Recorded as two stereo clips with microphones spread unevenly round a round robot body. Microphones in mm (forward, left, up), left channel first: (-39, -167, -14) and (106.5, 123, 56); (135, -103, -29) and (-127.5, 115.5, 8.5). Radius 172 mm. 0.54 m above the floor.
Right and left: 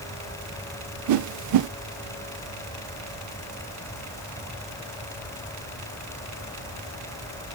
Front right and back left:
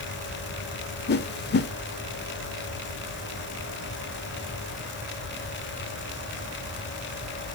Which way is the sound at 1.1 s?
20° left.